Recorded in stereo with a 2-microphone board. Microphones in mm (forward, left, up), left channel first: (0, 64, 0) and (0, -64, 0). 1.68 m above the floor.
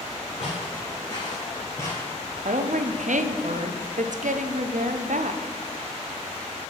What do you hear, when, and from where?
0.4 s footsteps: 50° left (ahead or behind), 2.5 m; by 2.1 s 15° left (ahead or behind), 2.5 m
2.5 s a woman speaking: 75° right (ahead or behind), 0.5 m